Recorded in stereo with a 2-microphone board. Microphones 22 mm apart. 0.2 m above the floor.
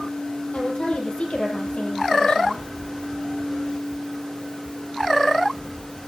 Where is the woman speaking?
60° left (ahead or behind), 6 m.